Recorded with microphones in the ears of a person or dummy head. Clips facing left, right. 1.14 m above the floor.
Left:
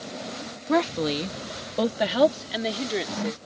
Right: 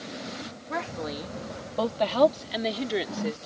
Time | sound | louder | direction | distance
0.7 | a woman speaking | left 10 dB | 60° left (ahead or behind) | ?